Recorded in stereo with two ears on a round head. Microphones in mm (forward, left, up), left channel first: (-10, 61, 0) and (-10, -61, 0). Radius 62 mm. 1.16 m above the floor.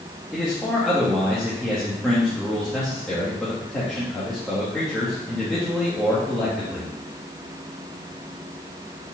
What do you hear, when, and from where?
0.3 s a man speaking: 5° left (ahead or behind), 1.4 m